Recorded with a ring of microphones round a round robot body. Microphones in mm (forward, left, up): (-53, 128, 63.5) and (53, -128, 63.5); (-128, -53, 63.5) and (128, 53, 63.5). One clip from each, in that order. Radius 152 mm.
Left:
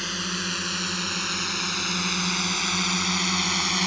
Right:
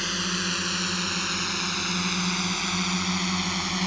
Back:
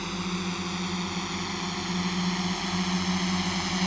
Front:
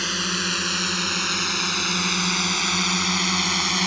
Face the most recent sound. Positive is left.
turn(degrees=55)